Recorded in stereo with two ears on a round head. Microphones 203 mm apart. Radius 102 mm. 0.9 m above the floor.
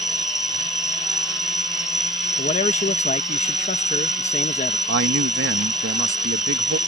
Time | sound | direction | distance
0.0 | an insect | centre (ahead or behind) | ?
2.4 | a man speaking | 30° left (ahead or behind) | ?
4.9 | a man speaking | 50° right (ahead or behind) | ?